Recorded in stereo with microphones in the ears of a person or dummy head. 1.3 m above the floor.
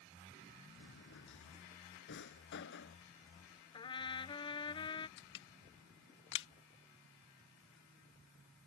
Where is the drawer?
60° left (ahead or behind).